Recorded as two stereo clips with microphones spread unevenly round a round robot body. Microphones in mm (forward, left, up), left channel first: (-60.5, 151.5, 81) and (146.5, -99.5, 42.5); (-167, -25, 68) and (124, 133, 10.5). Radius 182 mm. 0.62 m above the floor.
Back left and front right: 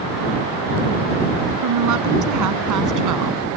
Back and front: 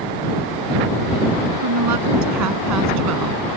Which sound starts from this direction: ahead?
A woman speaking, at 1.6 s.